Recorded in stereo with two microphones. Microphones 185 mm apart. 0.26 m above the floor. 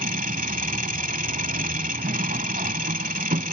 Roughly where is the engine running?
Right.